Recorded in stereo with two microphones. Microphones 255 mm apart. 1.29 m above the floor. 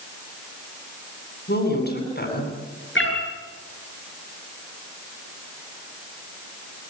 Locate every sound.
1.5 s a woman speaking: 45° left (ahead or behind), 9 m
3.0 s a cat meowing: 55° left (ahead or behind), 6.5 m